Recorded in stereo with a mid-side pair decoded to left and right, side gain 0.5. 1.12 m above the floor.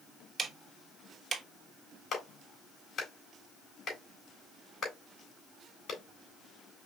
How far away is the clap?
About 3 m.